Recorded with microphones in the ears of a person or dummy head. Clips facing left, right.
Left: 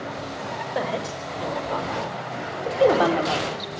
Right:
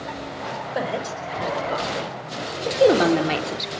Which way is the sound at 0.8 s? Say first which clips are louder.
Right 1 dB; 5° right (ahead or behind).